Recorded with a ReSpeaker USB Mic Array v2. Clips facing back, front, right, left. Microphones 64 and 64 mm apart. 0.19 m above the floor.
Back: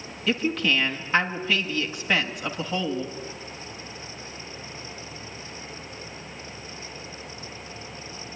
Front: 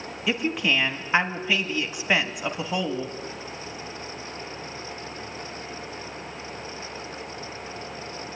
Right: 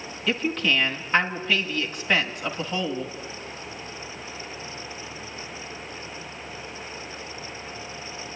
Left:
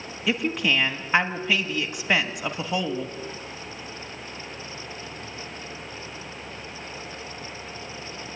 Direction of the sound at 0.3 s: 35° left.